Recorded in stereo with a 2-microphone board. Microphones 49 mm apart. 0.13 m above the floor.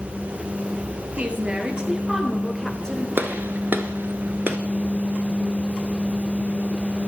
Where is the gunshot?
45° right (ahead or behind), 1.2 m.